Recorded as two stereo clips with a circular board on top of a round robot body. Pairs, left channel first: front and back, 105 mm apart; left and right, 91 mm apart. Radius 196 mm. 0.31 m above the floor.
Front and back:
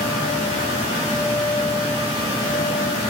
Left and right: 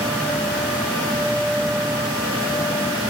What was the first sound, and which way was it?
Only background noise.